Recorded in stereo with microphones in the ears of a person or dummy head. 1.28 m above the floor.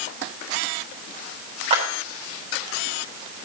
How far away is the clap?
About 3.5 m.